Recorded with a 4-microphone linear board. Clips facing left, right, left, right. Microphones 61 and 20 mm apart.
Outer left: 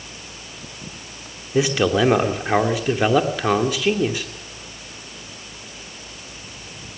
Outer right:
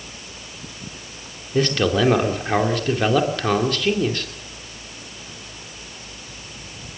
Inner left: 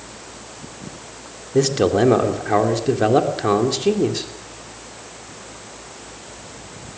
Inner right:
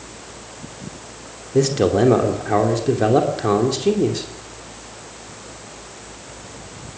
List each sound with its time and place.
1.5 s a man speaking: 10° left (ahead or behind), 2.5 m